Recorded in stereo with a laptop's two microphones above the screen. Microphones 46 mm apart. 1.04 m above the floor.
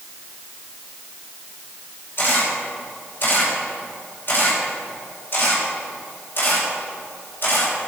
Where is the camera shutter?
45° left (ahead or behind), 3.5 m.